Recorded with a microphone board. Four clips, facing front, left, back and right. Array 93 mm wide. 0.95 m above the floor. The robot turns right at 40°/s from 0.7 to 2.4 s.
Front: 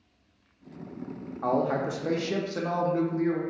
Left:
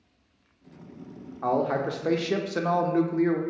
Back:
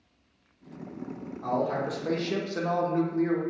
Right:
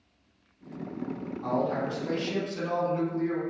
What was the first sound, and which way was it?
A man speaking, 50° left.